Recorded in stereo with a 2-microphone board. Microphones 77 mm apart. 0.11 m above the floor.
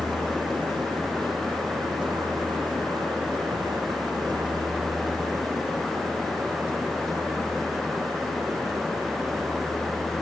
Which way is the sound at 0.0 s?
80° right.